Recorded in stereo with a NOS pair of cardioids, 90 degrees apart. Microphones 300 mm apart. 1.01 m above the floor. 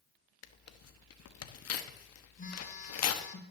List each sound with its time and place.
0.4 s tearing paper: 55° left, 1.1 m
2.4 s a phone buzzing: 25° left, 3 m